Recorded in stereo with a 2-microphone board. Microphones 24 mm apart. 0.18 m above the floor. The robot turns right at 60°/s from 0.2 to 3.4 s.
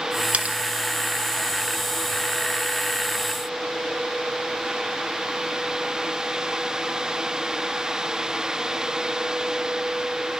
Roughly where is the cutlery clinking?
Right.